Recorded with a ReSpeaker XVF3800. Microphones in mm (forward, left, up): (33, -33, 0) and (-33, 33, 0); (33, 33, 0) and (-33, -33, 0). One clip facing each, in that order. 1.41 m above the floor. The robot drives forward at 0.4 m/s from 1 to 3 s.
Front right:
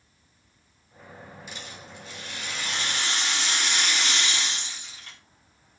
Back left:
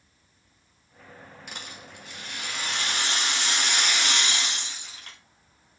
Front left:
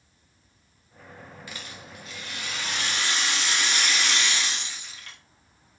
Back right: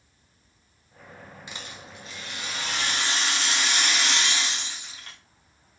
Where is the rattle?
160° left, 0.7 m; by 5.2 s 170° left, 1.2 m.